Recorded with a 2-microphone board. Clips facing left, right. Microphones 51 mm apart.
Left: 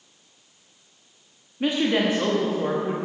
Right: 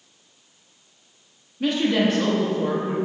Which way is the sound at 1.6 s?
20° left (ahead or behind).